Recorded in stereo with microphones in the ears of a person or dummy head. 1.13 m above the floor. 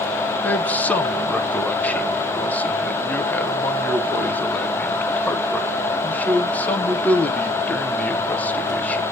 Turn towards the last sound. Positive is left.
turn(degrees=5)  # may be behind; listen again after turning